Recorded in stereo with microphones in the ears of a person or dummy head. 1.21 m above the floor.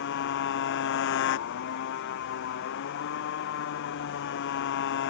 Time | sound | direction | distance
0.0 | a motorcycle | 65° left (ahead or behind) | ?